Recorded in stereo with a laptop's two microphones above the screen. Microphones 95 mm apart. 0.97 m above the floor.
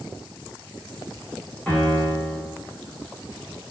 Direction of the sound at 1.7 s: 10° left (ahead or behind).